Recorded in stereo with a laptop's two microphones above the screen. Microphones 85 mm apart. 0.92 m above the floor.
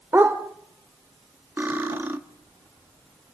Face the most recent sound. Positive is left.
turn(degrees=-25)  # may be behind; listen again after turning